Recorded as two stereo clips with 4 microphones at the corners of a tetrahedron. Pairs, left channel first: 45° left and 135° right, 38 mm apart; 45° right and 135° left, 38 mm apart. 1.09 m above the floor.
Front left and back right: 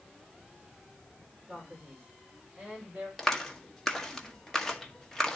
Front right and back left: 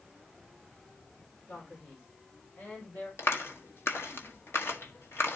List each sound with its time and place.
1.5 s a man speaking: 65° right, 4.5 m; by 3.1 s 75° right, 6 m
3.2 s a clap: 40° right, 1.7 m